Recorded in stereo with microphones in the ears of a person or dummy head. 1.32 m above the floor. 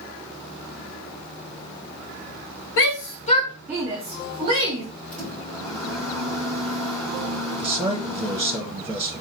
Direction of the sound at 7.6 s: 15° right (ahead or behind).